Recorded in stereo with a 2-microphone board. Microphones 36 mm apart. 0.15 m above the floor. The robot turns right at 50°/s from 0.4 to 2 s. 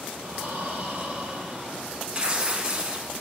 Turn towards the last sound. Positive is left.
turn(degrees=-30)  # may be behind; listen again after turning